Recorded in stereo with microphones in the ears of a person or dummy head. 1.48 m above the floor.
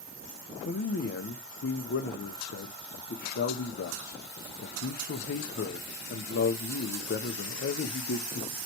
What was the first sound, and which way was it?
A man speaking, 45° left (ahead or behind).